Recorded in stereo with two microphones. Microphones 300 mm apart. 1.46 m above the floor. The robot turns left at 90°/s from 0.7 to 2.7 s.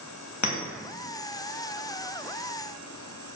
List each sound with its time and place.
0.4 s a clink: 70° left (ahead or behind), 1.0 m